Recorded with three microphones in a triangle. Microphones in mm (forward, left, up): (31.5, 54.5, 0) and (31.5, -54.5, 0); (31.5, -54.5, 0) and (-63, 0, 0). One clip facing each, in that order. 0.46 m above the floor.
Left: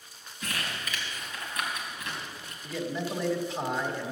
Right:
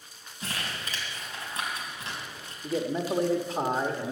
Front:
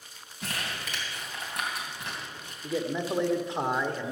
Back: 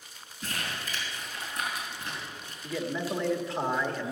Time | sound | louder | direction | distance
0.4 | crumpling | even, even | 35° right | 3 m
2.6 | a man speaking | right 4 dB, front 2 dB | 90° right | 1.1 m